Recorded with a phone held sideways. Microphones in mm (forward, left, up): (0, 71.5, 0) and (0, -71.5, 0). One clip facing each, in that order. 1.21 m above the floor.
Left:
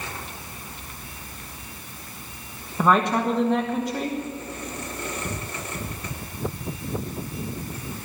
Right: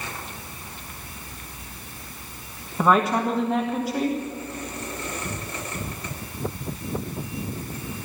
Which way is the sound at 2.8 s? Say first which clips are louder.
Even; 5° right (ahead or behind).